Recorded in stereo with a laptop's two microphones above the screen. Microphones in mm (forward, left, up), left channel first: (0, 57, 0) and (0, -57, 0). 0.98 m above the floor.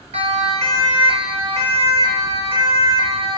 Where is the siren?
75° right (ahead or behind), 4.5 m; by 3.4 s 50° right (ahead or behind), 7 m.